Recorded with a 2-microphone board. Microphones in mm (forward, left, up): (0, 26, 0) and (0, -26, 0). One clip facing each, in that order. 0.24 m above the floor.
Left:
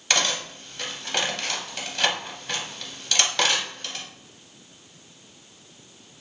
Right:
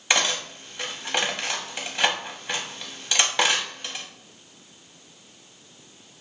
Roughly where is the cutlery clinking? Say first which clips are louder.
Right 1 dB; centre.